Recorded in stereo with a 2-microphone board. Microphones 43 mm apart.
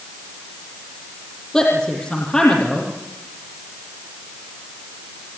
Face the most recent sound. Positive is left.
turn(degrees=10)  # may be behind; listen again after turning